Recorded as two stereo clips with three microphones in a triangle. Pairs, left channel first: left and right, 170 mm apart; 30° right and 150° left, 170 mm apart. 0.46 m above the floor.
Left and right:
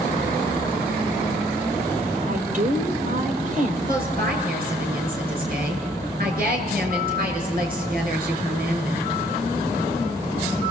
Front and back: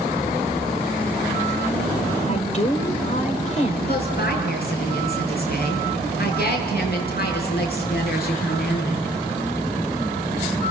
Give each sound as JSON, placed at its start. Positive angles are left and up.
{"t": 2.2, "sound": "a woman speaking", "azimuth_deg": -65, "distance_m": 2.0}
{"t": 3.9, "sound": "a woman speaking", "azimuth_deg": -55, "distance_m": 6.5}